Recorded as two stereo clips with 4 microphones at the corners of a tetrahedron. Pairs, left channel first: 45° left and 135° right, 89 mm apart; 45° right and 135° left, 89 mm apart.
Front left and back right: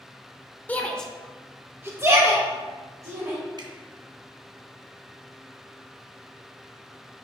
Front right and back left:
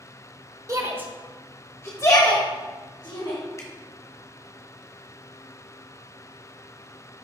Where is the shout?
105° left, 1.1 m; by 3.4 s 80° right, 3 m.